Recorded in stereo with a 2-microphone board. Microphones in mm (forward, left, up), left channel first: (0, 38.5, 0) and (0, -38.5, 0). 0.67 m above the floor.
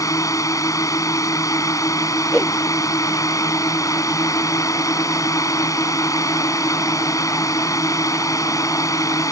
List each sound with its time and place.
0.0 s a drone: 45° left (ahead or behind)
2.3 s a whoosh: 5° left (ahead or behind)